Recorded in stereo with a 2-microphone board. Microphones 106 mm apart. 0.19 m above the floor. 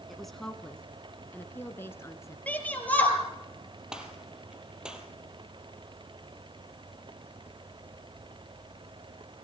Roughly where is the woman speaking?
Centre.